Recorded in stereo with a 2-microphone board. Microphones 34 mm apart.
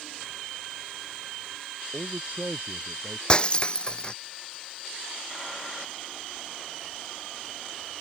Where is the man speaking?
50° right (ahead or behind).